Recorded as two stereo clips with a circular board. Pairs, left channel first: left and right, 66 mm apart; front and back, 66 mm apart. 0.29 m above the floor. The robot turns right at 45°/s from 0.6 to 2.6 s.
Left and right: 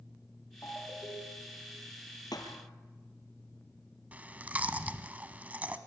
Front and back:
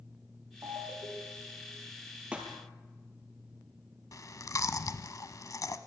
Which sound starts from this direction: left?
A thud, at 2.3 s.